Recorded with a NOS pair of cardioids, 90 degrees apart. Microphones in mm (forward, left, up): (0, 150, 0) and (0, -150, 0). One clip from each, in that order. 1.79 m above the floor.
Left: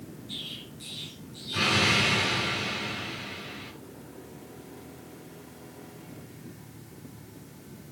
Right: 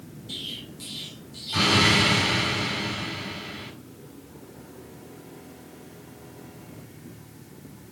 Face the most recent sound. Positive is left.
turn(degrees=-65)